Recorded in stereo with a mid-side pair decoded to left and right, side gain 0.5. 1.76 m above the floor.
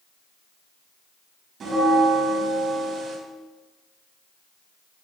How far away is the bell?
About 3.5 m.